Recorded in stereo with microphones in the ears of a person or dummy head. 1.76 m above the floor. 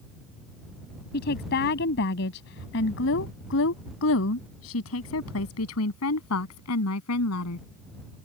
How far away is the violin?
No violin in this recording.